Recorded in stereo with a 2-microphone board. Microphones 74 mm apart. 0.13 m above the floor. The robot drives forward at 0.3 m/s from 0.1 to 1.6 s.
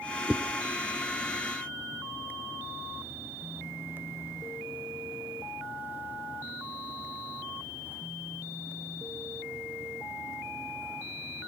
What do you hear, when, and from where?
0.3 s a whoosh: 10° right (ahead or behind), 0.8 m